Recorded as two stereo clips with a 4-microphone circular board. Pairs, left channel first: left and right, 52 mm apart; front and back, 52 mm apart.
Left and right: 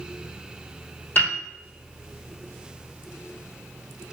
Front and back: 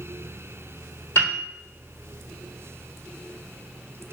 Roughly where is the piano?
Ahead left.